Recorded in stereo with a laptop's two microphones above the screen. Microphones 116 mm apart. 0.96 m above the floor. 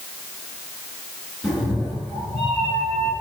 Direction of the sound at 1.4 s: Centre (ahead or behind).